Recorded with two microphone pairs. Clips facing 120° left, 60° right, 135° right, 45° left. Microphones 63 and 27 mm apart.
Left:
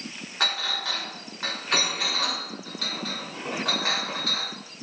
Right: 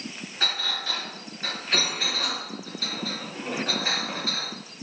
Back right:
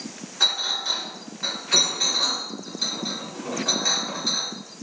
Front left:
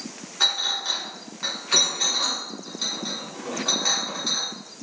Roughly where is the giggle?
No giggle in this recording.